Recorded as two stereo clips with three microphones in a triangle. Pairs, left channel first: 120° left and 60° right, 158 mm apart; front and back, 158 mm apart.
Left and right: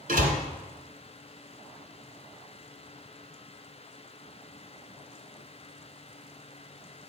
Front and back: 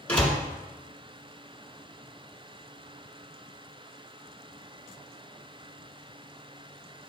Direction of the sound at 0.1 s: 80° right.